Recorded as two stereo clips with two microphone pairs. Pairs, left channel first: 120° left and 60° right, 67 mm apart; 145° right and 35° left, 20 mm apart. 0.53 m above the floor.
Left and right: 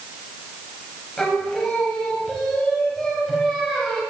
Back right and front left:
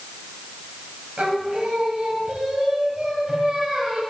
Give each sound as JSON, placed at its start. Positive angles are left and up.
{"t": 1.2, "sound": "singing", "azimuth_deg": 35, "distance_m": 1.5}